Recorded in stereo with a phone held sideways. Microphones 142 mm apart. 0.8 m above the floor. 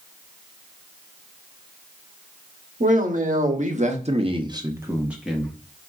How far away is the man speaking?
About 1.4 m.